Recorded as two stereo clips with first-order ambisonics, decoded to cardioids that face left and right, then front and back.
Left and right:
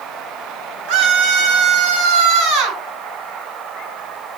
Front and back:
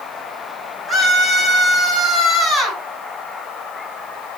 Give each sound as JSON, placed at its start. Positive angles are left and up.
{"t": 0.9, "sound": "a scream", "azimuth_deg": -90, "distance_m": 6.0}